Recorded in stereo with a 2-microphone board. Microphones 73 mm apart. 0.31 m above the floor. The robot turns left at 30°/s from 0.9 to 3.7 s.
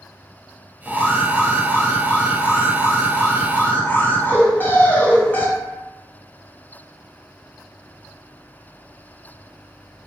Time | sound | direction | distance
0.8 | an alarm | 140° left | 0.8 m